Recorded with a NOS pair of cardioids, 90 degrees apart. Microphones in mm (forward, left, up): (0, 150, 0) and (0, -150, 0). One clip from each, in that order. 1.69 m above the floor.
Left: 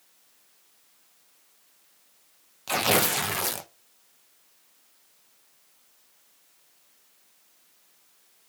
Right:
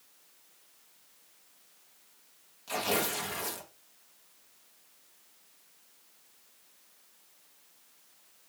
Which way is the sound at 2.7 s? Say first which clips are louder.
Left 7 dB; 60° left.